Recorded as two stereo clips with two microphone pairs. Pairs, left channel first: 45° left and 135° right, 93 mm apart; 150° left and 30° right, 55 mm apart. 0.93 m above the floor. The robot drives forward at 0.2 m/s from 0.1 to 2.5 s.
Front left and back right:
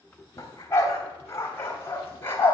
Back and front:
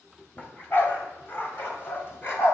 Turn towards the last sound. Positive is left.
turn(degrees=110)